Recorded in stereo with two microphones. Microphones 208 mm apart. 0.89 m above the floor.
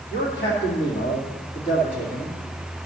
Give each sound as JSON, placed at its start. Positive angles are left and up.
{"t": 0.1, "sound": "a man speaking", "side_deg": 65, "distance_m": 2.5}